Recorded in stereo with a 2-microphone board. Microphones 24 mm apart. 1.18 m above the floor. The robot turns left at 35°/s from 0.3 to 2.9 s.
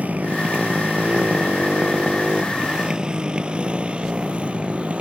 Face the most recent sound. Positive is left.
turn(degrees=-55)  # may be behind; listen again after turning